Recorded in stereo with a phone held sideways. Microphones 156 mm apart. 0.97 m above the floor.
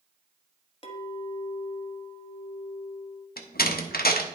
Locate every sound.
0.8 s a clink: 35° left (ahead or behind), 1.1 m
3.4 s a door slam: 75° left (ahead or behind), 0.9 m